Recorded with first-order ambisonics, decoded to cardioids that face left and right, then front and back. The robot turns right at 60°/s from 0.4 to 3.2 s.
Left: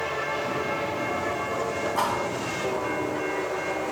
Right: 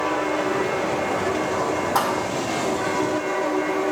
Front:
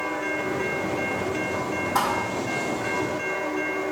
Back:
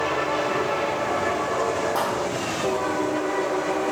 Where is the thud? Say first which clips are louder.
Right 3 dB, front 1 dB; 80° right, 2.5 m; by 2.3 s 60° right, 2.5 m.